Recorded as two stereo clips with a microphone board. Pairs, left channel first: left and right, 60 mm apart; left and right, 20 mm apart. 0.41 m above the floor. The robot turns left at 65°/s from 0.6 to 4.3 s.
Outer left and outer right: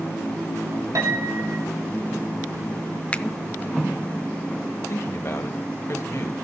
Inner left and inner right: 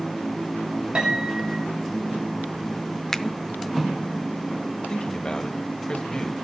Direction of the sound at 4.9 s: 50° left (ahead or behind).